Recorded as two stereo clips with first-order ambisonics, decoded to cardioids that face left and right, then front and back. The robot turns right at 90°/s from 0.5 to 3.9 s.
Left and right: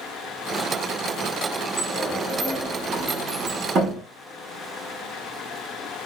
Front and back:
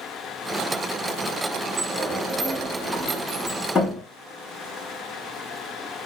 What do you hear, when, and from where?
1.8 s a sliding door: 115° left, 1.0 m; by 4.0 s 50° right, 1.0 m